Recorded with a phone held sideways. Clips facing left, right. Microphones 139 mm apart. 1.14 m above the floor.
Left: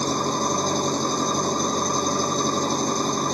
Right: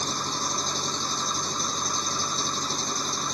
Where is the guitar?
I don't hear a guitar.